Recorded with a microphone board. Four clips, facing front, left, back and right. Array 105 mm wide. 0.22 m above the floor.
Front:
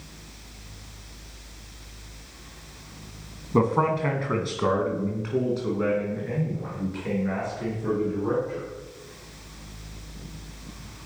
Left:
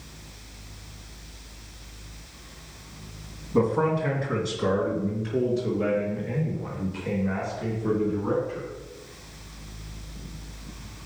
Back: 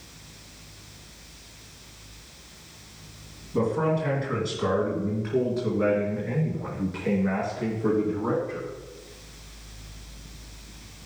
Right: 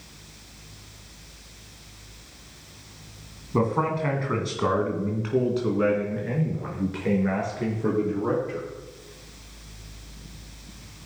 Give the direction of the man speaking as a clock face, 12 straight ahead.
1 o'clock.